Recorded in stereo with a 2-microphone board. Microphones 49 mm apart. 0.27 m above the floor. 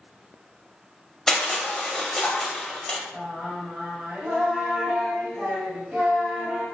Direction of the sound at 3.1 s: 20° right (ahead or behind).